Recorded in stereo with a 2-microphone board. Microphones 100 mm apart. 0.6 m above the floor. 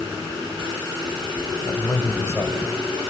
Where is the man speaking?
40° left (ahead or behind), 3 m; by 3.1 s 15° left (ahead or behind), 2.5 m.